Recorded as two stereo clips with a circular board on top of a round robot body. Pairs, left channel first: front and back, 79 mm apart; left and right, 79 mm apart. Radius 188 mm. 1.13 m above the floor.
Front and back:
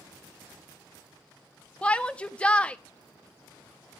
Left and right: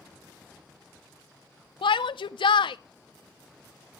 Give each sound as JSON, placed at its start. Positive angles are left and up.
{"t": 1.8, "sound": "a shout", "azimuth_deg": 75, "distance_m": 0.5}